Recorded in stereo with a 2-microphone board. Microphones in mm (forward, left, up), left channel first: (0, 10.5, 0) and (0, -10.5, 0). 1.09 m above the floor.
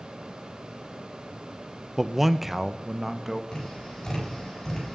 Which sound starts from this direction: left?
Tapping, at 3.5 s.